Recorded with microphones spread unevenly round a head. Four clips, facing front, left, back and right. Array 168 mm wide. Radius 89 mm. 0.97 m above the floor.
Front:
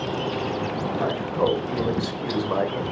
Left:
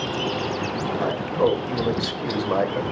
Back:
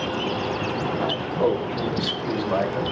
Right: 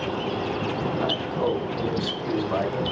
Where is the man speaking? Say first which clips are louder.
Left 7 dB, even; 70° left, 5.5 m; by 2.8 s 85° left, 5.5 m.